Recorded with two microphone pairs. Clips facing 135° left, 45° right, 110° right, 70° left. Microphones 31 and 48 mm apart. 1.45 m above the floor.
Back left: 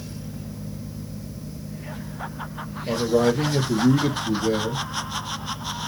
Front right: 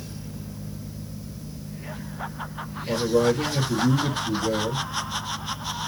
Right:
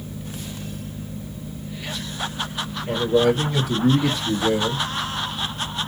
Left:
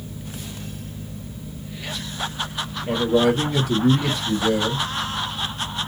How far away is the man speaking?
About 0.9 m.